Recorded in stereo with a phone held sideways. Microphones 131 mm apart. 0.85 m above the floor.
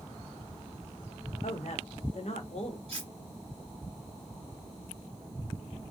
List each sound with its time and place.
1.4 s a woman speaking: 60° left (ahead or behind), 1.0 m
2.9 s cutlery clinking: 50° right (ahead or behind), 1.5 m